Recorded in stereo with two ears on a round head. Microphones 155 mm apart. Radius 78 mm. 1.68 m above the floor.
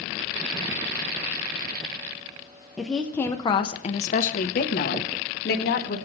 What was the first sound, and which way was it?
A woman speaking, 5° right (ahead or behind).